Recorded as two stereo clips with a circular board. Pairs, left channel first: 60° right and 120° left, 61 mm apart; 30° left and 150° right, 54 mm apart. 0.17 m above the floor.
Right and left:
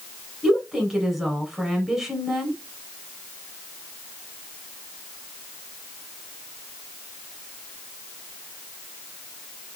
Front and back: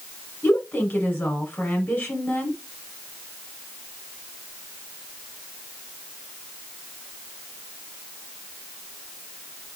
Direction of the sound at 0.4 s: 45° left.